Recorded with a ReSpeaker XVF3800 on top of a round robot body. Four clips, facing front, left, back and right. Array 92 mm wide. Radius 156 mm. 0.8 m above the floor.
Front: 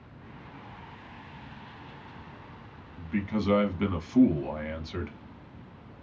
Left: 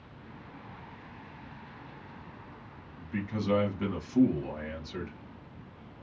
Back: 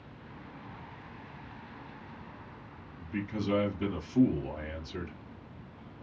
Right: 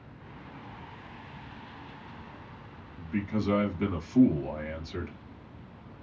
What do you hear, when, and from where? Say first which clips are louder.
3.0 s a man speaking: right 3 dB, front 5 dB; straight ahead, 1.4 m